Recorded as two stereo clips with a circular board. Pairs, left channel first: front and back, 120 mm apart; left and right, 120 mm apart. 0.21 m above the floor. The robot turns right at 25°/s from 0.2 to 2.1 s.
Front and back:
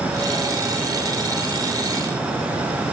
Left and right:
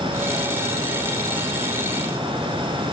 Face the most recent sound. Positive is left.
No sound to turn to.